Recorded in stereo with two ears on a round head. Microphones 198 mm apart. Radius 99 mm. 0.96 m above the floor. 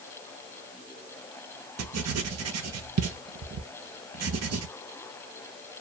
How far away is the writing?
About 0.6 m.